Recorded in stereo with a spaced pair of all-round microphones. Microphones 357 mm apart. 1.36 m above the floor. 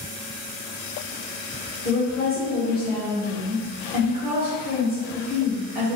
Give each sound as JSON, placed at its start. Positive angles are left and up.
{"t": 1.8, "sound": "a woman speaking", "side_deg": 25, "distance_m": 1.8}